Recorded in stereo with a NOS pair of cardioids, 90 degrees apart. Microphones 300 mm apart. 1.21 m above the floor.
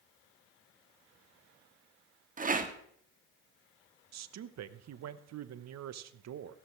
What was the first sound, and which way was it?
A rattle, 25° right.